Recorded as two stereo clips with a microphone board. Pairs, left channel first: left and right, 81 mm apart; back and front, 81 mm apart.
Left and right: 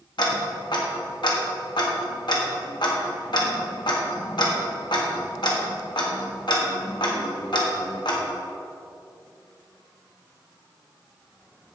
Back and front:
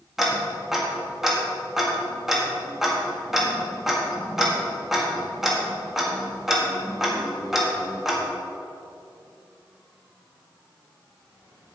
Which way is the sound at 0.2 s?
85° left.